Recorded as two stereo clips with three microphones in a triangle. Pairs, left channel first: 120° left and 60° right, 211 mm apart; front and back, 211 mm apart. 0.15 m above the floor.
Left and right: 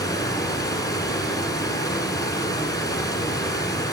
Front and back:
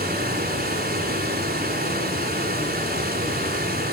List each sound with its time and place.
0.0 s running water: 175° right, 1.4 m